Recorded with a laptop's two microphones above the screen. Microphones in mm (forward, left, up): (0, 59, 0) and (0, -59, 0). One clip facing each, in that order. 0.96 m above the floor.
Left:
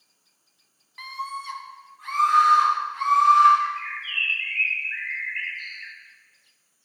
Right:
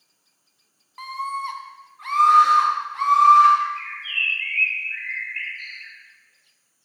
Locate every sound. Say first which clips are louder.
1.0 s a scream: right 5 dB; 35° right (ahead or behind), 0.9 m; by 3.5 s 75° right (ahead or behind), 1.6 m
3.6 s a bird: right 1 dB; 50° right (ahead or behind), 1.1 m